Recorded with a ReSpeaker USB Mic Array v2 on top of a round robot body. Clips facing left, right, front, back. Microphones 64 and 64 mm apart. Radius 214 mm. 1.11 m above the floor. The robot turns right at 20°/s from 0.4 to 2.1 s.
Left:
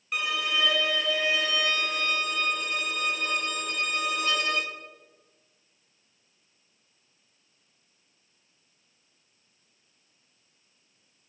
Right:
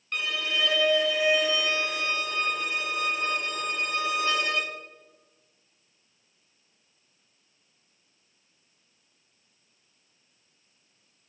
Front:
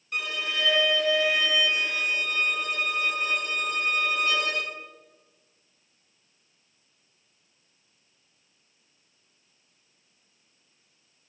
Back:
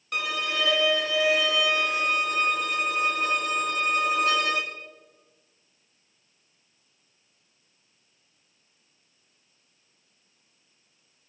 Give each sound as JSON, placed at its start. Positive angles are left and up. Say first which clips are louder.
{"t": 0.1, "sound": "a violin", "louder": "left 1 dB, back 2 dB", "azimuth_deg": 170, "distance_m": 0.6}